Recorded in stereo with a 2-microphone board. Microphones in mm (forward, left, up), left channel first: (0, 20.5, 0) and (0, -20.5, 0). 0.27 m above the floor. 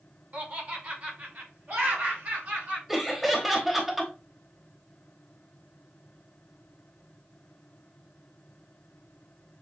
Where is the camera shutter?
No camera shutter in this recording.